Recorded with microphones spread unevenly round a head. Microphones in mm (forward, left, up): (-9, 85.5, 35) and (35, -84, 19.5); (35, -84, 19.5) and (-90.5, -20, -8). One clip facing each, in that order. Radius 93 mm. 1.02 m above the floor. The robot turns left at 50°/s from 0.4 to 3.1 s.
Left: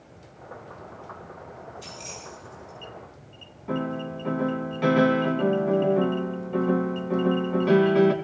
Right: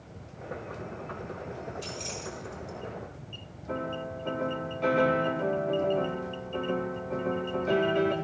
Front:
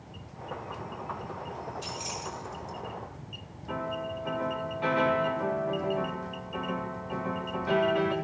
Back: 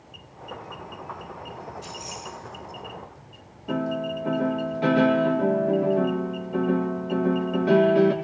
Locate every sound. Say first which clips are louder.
1.8 s keys jangling: right 3 dB, even; 25° left, 7.5 m; by 2.8 s 25° right, 7.5 m
3.7 s a piano: left 5 dB, back 7 dB; 95° left, 2.5 m